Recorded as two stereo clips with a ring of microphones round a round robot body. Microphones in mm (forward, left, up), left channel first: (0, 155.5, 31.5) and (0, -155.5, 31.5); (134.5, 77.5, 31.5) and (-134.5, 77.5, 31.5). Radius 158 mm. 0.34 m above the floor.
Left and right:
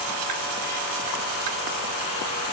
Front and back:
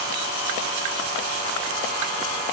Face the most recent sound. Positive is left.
No sound to turn to.